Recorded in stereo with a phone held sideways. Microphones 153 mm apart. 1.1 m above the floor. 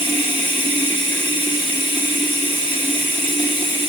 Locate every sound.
0.0 s running water: 30° left (ahead or behind), 1.8 m